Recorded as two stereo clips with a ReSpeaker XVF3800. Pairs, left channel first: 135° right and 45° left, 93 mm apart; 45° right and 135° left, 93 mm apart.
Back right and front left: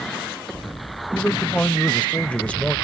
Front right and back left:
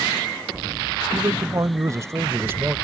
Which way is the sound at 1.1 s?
155° left.